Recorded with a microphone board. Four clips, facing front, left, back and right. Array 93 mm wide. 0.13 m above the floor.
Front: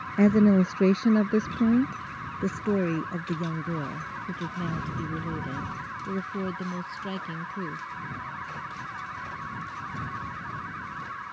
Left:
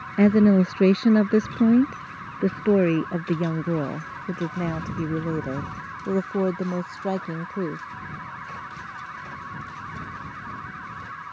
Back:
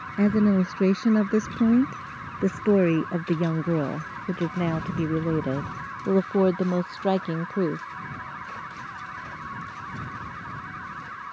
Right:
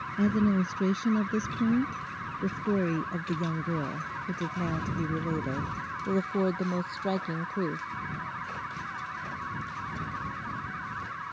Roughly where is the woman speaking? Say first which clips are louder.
Left 9 dB, front 1 dB; left.